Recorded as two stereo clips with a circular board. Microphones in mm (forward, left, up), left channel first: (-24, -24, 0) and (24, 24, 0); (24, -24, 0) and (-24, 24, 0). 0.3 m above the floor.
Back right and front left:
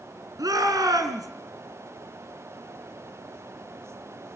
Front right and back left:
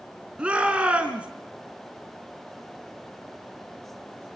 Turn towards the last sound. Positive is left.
turn(degrees=60)